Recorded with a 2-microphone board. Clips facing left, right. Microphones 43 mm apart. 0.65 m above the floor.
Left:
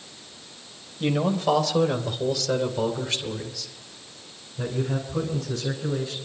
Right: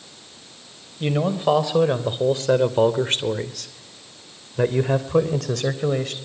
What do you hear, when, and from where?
1.0 s a man speaking: 10° right (ahead or behind), 3.5 m; by 6.1 s 70° right (ahead or behind), 3.5 m